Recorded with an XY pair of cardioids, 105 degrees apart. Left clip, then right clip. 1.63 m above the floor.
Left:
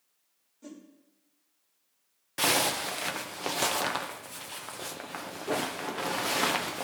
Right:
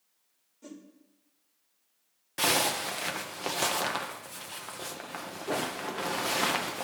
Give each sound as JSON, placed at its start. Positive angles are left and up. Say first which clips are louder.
{"t": 0.6, "sound": "a whoosh", "louder": "even", "azimuth_deg": -5, "distance_m": 1.5}
{"t": 2.4, "sound": "a zipper", "louder": "even", "azimuth_deg": 10, "distance_m": 0.7}